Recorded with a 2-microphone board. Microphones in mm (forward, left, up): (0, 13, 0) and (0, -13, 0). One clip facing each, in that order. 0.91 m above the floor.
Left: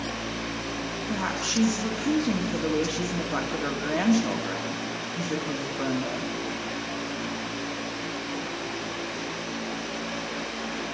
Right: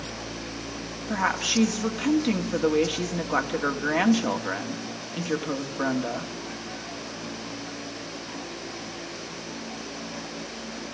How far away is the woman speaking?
About 1.6 m.